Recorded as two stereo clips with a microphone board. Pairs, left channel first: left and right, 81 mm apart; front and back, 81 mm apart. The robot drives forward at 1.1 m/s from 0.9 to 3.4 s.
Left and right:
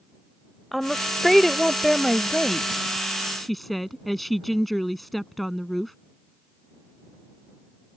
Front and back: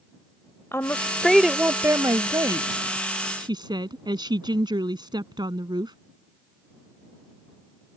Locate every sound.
0.7 s a woman speaking: straight ahead; by 6.0 s straight behind